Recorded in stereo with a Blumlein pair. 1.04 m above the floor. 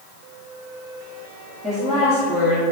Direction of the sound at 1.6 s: 10° right.